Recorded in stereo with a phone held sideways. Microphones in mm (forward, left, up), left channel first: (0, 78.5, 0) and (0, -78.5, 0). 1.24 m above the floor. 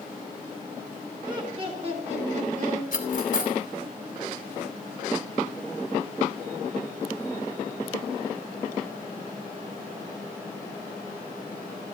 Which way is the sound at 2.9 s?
60° left (ahead or behind).